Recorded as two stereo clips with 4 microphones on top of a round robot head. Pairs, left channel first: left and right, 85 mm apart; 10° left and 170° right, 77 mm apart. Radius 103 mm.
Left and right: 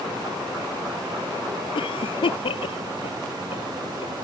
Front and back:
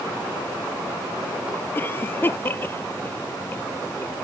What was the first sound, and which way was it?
A cough, 75° left.